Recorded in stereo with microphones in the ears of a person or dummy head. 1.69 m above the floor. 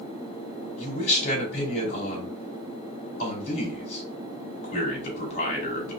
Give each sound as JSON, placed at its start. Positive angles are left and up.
{"t": 0.8, "sound": "a man speaking", "side_deg": 40, "distance_m": 3.0}